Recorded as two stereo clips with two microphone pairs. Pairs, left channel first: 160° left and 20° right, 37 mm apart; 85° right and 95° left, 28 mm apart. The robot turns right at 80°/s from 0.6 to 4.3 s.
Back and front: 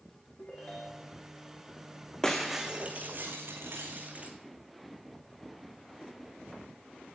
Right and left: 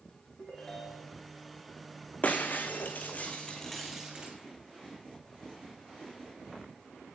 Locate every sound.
0.4 s a ringtone: 150° right, 3.5 m; by 1.2 s 100° right, 3.5 m
2.2 s breaking glass: 120° right, 1.9 m; by 4.3 s 45° left, 1.9 m